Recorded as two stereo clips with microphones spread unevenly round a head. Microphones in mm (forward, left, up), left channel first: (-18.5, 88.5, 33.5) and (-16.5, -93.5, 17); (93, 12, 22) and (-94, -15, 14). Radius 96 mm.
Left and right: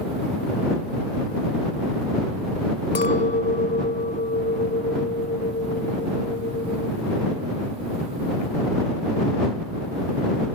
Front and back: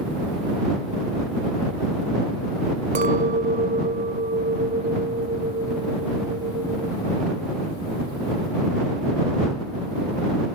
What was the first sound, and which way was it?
A clink, 135° left.